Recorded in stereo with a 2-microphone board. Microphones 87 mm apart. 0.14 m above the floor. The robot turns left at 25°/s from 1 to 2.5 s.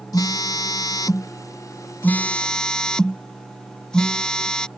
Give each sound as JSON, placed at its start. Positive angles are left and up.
{"t": 0.1, "sound": "a phone buzzing", "azimuth_deg": 45}